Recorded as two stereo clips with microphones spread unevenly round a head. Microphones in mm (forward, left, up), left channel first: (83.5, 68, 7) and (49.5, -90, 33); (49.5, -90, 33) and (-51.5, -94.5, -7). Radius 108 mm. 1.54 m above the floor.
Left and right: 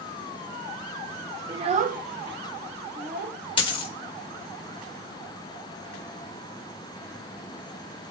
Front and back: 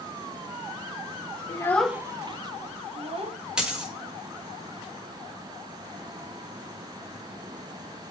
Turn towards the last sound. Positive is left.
turn(degrees=55)